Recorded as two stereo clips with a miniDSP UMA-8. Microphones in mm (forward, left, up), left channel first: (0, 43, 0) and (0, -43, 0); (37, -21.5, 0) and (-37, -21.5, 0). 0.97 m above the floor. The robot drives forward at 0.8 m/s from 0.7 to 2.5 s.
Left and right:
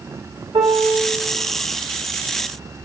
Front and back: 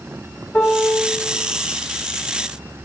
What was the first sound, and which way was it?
A piano, 75° right.